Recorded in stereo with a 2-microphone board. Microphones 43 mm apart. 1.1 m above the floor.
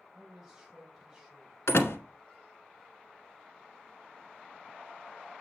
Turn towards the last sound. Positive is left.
turn(degrees=80)